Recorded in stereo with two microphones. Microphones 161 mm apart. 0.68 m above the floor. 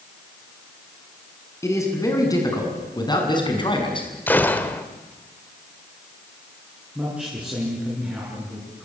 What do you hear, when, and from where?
1.6 s a man speaking: 20° left (ahead or behind), 6 m; by 4.1 s 30° left (ahead or behind), 5.5 m
4.3 s a gunshot: 10° left (ahead or behind), 1.4 m
7.0 s a man speaking: 5° right (ahead or behind), 8 m